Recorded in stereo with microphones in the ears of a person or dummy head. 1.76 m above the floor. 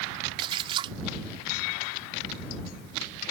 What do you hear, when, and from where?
0.4 s a splash: 20° right (ahead or behind)